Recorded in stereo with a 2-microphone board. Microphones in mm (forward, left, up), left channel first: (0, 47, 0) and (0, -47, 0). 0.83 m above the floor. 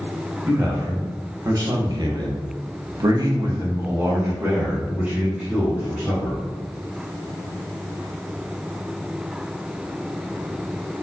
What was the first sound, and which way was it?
A man speaking, 30° right (ahead or behind).